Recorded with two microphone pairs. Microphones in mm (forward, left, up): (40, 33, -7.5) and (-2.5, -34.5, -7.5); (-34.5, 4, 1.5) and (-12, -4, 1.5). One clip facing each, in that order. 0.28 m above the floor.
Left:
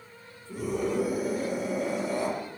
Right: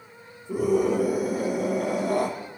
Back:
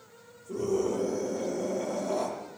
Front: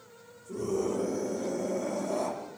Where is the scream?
140° right, 8 m.